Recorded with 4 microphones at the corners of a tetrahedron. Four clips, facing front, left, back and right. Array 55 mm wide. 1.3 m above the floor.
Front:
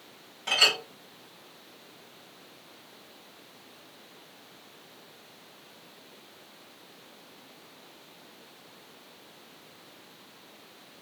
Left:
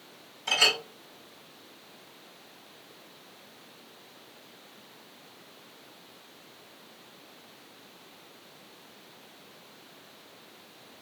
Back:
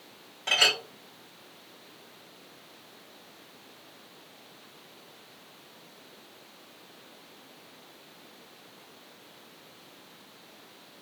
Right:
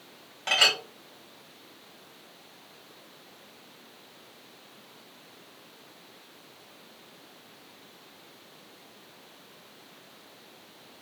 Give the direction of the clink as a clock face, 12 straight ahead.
3 o'clock.